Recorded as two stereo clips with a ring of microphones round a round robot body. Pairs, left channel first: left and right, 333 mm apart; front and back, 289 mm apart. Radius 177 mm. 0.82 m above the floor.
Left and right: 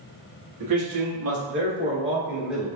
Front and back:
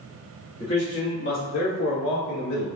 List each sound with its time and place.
0.6 s a man speaking: 75° right, 1.8 m; by 2.7 s straight ahead, 2 m